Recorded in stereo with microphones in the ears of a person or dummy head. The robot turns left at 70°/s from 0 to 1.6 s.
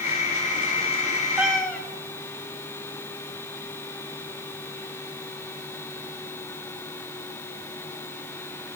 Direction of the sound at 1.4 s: 5° right (ahead or behind).